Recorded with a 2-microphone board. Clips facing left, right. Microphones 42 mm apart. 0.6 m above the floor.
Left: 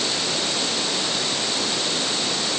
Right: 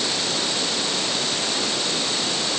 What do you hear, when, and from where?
Only background noise.